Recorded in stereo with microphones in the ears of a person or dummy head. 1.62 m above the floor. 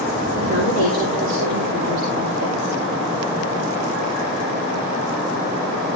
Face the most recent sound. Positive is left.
turn(degrees=-55)  # may be behind; listen again after turning